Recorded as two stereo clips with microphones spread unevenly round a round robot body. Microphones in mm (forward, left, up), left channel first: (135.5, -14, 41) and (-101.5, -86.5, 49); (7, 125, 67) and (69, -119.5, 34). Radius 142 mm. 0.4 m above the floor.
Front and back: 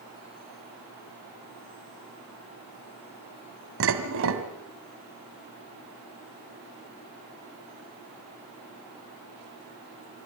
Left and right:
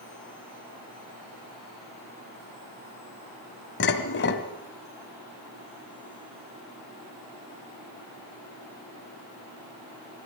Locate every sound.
3.8 s dishes clattering: 155° left, 2 m